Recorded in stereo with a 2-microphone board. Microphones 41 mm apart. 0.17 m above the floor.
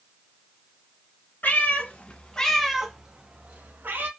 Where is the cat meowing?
50° left (ahead or behind), 1.2 m; by 4.1 s 55° right (ahead or behind), 1.3 m.